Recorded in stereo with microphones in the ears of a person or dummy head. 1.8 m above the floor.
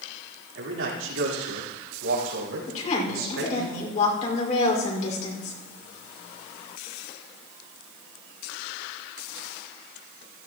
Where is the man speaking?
75° right (ahead or behind), 4.5 m; by 3.7 s 85° right, 6 m.